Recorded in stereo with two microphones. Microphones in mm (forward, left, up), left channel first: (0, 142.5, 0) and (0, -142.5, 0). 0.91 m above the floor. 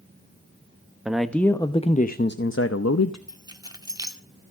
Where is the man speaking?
5° right (ahead or behind), 1.0 m; by 3.2 s 65° left (ahead or behind), 1.0 m.